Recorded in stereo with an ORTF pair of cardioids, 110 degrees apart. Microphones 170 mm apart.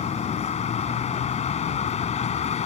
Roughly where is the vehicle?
Ahead left.